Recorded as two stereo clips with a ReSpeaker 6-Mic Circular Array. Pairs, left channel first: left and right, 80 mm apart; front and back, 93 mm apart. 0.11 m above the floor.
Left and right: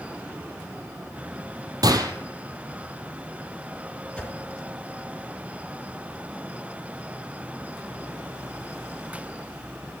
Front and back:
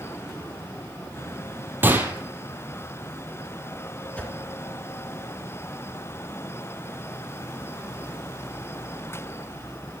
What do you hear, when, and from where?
1.8 s a gunshot: 115° right, 1.4 m
4.2 s a whoosh: 45° left, 1.6 m